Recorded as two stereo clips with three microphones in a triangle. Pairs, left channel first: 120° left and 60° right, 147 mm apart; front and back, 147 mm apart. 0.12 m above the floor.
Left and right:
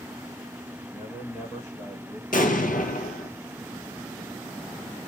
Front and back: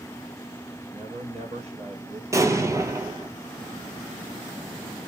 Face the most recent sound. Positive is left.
turn(degrees=115)